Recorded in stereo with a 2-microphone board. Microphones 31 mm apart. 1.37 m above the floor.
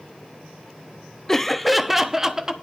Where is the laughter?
20° left (ahead or behind), 0.7 m; by 2.5 s 15° right (ahead or behind), 1.3 m.